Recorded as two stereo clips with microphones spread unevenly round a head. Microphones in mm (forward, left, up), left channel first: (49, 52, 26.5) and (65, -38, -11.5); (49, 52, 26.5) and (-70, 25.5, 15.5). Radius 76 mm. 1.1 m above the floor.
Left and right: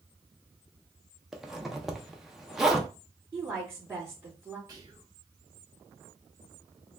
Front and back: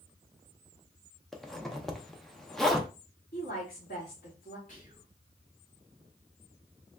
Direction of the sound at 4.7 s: 30° right.